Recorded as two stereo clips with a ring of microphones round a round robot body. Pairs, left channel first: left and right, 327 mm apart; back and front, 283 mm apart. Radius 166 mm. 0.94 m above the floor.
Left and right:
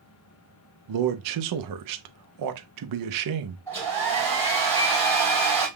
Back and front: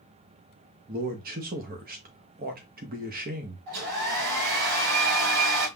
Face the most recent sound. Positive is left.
turn(degrees=10)